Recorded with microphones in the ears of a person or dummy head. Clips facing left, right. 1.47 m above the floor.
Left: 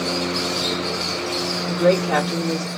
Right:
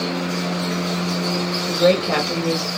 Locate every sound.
1.7 s a woman speaking: 45° right (ahead or behind), 2 m